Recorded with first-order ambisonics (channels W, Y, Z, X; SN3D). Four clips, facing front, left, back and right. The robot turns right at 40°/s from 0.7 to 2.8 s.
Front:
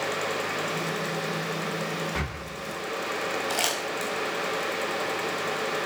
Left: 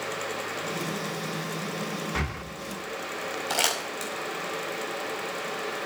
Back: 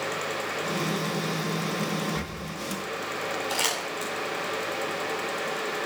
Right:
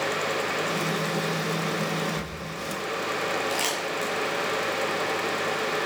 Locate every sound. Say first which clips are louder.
2.1 s breathing: left 2 dB, front 1 dB; 55° left, 0.6 m; by 2.4 s 65° left, 0.6 m
3.5 s crumpling: even, even; 65° left, 4.5 m